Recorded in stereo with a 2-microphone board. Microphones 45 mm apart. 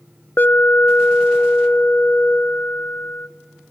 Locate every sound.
0.4 s an alarm: 45° left (ahead or behind), 0.7 m